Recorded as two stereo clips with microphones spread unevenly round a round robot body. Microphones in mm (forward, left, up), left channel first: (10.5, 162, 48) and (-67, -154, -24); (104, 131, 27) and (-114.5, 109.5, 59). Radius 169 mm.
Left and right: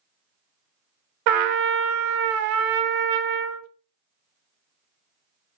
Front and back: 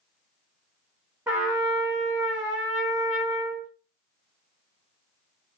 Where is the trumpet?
95° right, 0.5 m.